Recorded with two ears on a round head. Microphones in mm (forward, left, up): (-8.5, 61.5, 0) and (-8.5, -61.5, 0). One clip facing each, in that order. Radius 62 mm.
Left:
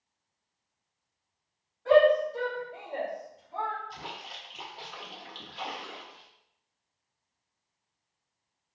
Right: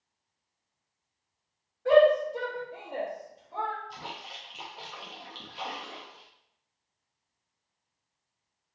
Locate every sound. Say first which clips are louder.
1.9 s a shout: right 1 dB; 35° right (ahead or behind), 1.9 m; by 3.8 s 45° right (ahead or behind), 1.1 m
3.9 s a splash: even; centre (ahead or behind), 0.7 m